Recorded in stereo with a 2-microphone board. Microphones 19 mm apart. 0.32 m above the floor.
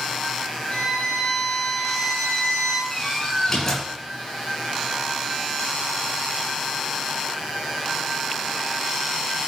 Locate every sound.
0.7 s a violin: 45° left (ahead or behind), 4.5 m
2.9 s a door slam: 15° left (ahead or behind), 4.5 m